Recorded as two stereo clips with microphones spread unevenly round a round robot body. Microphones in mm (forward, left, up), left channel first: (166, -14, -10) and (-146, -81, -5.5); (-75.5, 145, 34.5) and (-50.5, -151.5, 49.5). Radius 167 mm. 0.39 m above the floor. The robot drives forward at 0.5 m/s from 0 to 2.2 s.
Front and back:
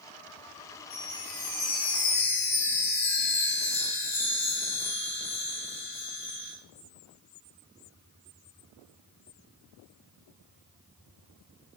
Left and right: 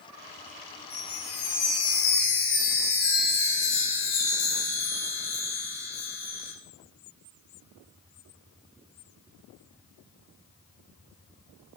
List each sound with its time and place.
0.9 s a chime: 65° left, 2.5 m; by 6.5 s 85° left, 2 m